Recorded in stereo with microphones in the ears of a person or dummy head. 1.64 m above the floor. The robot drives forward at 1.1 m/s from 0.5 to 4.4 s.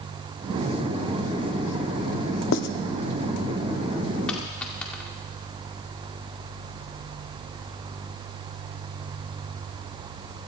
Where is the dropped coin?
5° left (ahead or behind), 2 m; by 5.1 s 10° left (ahead or behind), 1.9 m.